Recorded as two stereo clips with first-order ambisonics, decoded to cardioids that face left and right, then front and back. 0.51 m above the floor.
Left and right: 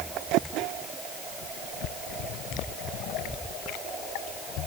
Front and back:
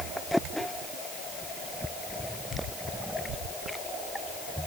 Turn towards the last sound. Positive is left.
No sound to turn to.